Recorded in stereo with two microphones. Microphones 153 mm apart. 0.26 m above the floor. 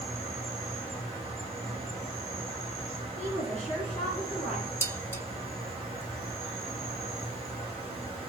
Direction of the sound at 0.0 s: Centre (ahead or behind).